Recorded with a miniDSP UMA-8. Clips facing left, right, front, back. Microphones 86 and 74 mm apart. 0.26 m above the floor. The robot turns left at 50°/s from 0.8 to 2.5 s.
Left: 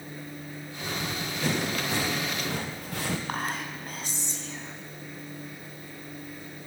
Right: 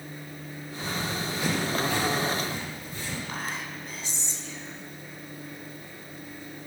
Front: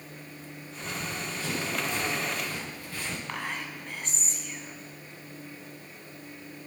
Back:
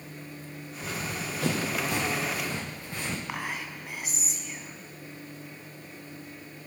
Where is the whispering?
105° left, 1.9 m.